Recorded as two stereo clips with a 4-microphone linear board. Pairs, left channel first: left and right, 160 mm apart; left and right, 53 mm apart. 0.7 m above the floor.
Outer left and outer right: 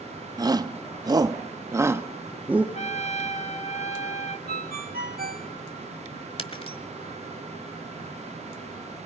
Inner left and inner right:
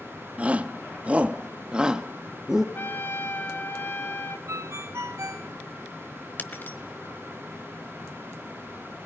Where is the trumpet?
45° left (ahead or behind), 1.4 m.